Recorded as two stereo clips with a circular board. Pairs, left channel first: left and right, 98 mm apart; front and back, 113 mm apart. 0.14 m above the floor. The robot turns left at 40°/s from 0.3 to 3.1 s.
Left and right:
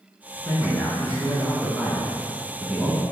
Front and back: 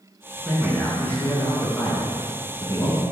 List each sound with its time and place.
0.4 s a man speaking: 80° left, 1.1 m; by 3.0 s 25° right, 1.1 m